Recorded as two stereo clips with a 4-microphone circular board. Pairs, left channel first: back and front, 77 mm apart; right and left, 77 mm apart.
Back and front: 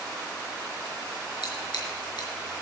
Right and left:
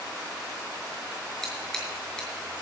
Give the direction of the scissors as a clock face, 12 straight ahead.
6 o'clock.